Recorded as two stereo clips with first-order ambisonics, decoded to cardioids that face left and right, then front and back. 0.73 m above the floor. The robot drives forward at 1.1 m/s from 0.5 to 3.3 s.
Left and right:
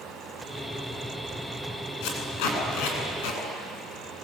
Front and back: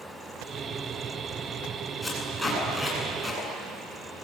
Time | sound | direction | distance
2.0 | tape being pulled | 85° left | 9 m